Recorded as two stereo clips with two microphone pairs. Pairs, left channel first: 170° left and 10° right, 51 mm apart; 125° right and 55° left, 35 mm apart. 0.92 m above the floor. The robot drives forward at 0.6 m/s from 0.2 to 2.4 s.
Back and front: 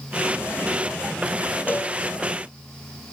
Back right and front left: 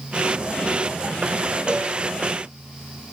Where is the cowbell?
120° left.